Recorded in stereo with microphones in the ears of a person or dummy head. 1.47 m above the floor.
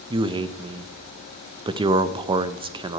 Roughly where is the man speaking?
Right.